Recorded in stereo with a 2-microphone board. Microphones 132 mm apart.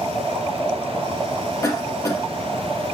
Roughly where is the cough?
Left.